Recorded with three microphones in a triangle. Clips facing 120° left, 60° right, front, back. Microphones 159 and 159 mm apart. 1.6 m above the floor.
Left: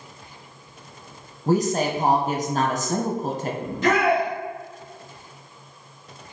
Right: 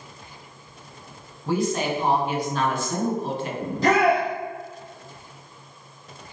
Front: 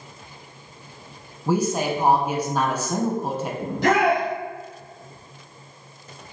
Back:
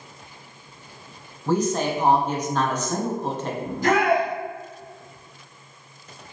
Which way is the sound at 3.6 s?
5° right.